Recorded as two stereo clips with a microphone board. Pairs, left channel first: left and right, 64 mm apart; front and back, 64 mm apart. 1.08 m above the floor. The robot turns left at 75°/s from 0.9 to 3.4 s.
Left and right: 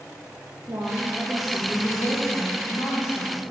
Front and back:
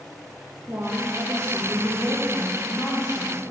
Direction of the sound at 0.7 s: 140° right.